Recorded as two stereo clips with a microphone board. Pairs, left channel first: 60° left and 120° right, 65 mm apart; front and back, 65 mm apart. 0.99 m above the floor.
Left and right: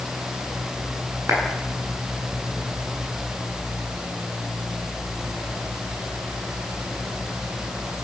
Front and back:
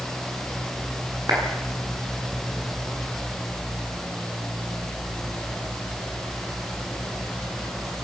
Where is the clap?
165° right, 10 m.